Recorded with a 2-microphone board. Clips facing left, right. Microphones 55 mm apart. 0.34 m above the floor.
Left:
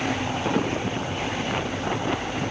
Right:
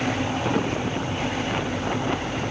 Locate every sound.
Only background noise.